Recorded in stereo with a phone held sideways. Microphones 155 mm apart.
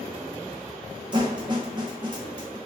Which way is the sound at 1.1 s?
30° right (ahead or behind).